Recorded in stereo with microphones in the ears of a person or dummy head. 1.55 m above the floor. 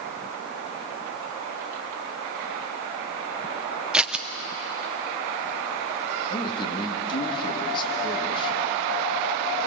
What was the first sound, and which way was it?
Scissors, 5° right (ahead or behind).